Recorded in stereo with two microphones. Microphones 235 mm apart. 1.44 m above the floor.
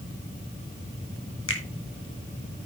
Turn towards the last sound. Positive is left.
turn(degrees=60)  # may be behind; listen again after turning